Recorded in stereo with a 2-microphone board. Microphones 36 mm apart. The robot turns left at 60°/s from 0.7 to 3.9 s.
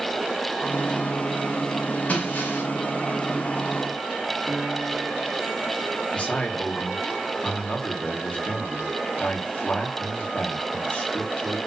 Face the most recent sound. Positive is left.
turn(degrees=35)  # may be behind; listen again after turning